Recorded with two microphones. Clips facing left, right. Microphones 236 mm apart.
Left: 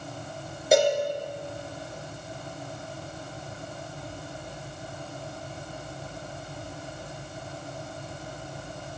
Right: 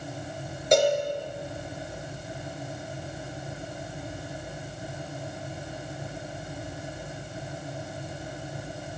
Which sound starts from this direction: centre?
A cowbell, at 0.7 s.